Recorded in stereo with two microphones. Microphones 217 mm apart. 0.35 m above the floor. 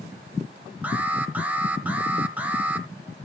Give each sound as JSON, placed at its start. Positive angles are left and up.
{"t": 0.8, "sound": "an alarm", "side_deg": -5, "distance_m": 1.3}